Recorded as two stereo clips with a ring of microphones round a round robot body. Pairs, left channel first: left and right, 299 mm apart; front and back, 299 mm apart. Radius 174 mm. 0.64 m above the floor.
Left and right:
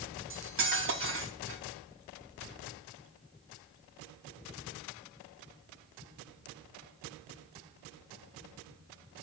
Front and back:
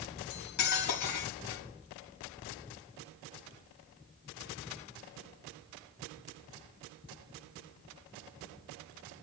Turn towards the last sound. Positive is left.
turn(degrees=-40)